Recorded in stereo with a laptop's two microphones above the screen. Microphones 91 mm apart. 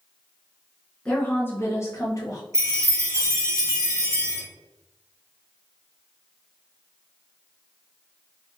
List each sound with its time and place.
1.1 s a woman speaking: 10° left (ahead or behind), 0.7 m; by 2.4 s 40° left (ahead or behind), 1.0 m
2.5 s a chime: 35° right (ahead or behind), 0.9 m